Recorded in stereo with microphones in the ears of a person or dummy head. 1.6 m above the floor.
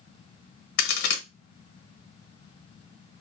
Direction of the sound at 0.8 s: 60° left (ahead or behind).